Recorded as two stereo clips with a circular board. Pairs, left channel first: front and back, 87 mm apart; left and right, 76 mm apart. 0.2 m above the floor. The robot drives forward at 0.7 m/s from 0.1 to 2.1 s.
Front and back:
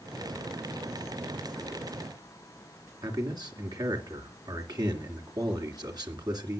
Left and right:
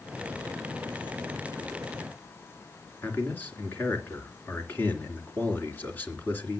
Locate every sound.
3.0 s a man speaking: 150° left, 2.5 m